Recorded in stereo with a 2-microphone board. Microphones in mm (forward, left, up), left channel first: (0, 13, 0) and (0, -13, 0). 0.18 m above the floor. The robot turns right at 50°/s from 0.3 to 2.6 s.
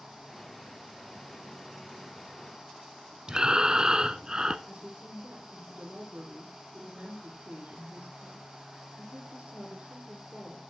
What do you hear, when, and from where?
3.3 s breathing: 30° right (ahead or behind), 0.7 m
4.7 s a woman speaking: 55° right (ahead or behind), 7 m